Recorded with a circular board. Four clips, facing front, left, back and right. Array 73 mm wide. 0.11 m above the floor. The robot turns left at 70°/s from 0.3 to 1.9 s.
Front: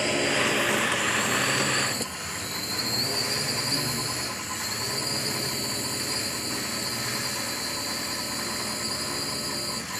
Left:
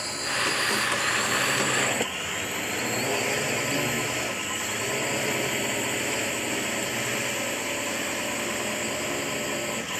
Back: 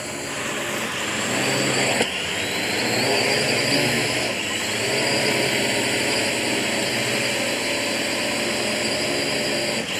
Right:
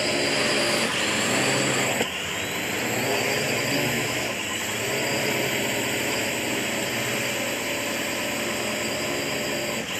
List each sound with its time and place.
0.0 s a drone: 60° right; by 10.0 s 170° right